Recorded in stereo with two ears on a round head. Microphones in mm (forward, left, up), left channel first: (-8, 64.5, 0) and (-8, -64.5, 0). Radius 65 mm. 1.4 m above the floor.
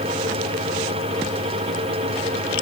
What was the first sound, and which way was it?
Only background noise.